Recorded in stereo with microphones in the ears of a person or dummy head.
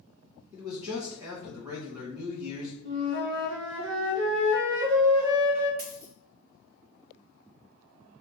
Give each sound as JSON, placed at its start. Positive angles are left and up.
{"t": 0.5, "sound": "a man speaking", "side_deg": -20, "distance_m": 2.0}
{"t": 2.9, "sound": "a flute", "side_deg": -70, "distance_m": 1.1}
{"t": 5.8, "sound": "a dropped coin", "side_deg": -50, "distance_m": 1.9}